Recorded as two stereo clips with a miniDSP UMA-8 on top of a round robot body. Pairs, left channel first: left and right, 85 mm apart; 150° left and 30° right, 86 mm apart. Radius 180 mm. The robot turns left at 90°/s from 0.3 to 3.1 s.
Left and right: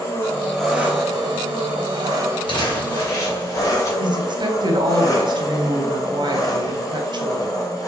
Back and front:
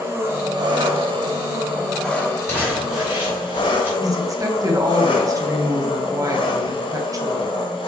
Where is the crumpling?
95° left, 3.5 m; by 3.9 s 35° left, 3.5 m.